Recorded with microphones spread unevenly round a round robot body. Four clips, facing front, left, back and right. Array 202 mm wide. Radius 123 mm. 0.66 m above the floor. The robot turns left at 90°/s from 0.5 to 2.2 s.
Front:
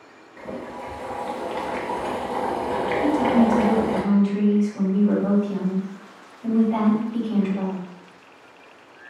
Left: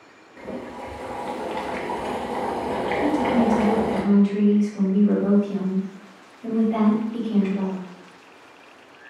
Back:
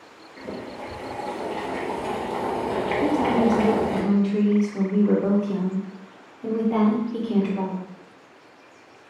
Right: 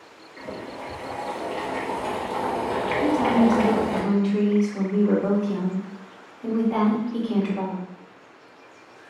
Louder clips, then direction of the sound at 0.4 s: Left 2 dB, front 1 dB; 110° left.